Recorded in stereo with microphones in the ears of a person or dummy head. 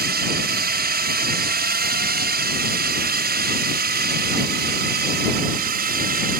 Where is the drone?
45° right (ahead or behind).